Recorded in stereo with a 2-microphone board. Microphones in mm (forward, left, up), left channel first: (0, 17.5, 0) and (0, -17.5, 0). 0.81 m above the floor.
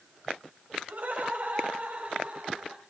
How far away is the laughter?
About 5 m.